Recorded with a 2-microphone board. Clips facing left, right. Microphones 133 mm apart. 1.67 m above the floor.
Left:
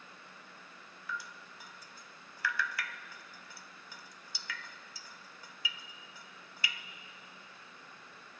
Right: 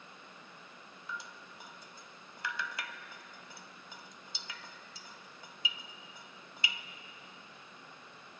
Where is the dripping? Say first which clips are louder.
Left 2 dB; 20° right (ahead or behind), 0.7 m.